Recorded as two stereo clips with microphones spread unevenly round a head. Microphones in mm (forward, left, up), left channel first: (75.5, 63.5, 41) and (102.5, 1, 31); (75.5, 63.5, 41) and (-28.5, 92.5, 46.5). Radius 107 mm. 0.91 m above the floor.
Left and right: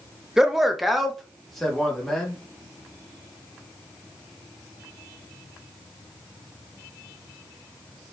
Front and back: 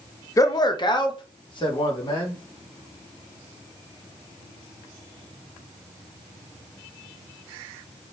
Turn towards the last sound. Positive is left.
turn(degrees=25)